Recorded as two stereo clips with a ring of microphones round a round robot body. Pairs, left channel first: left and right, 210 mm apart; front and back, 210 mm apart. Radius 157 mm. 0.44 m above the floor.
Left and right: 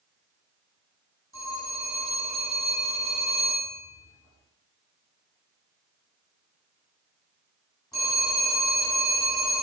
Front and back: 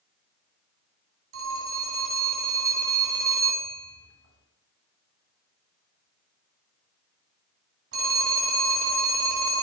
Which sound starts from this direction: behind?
A phone ringing, at 1.3 s.